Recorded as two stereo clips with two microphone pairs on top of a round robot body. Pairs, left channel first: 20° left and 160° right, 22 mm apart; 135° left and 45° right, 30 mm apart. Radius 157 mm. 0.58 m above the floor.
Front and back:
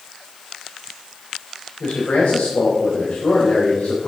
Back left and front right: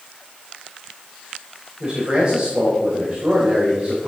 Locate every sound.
1.8 s a man speaking: 10° left, 4 m